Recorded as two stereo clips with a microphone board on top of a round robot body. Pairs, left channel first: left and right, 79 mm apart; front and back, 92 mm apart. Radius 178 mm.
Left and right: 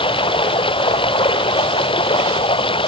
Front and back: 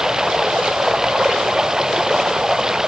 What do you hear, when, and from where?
0.0 s running water: 95° left